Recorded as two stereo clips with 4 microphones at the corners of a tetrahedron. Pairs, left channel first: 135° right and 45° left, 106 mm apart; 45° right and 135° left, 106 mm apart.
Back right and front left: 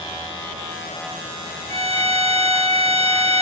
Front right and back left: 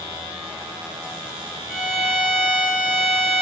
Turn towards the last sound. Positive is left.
turn(degrees=-145)